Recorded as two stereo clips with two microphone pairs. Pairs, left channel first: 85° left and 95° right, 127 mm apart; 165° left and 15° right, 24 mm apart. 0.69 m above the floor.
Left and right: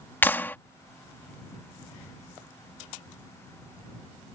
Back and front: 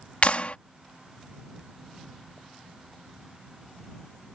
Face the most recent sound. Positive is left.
turn(degrees=155)